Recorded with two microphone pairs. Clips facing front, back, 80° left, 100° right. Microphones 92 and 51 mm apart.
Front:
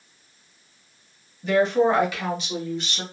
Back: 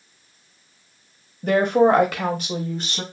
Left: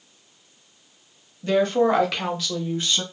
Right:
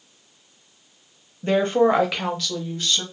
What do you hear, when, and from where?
1.4 s a woman speaking: 150° right, 0.8 m; by 3.0 s 140° left, 0.9 m